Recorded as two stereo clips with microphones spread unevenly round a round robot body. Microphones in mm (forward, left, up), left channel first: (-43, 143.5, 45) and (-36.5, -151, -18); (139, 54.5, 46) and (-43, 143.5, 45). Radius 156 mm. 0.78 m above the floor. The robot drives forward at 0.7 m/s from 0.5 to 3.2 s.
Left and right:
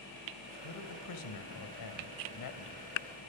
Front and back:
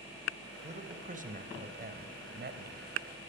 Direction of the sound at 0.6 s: 100° left.